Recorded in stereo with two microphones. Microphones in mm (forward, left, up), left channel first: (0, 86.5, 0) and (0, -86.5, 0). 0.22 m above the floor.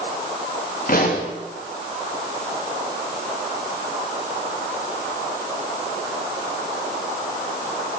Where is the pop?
55° left (ahead or behind), 7.5 m.